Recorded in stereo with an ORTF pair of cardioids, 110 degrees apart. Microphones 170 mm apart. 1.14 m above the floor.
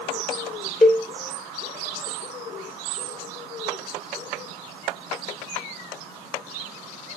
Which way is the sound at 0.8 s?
Straight ahead.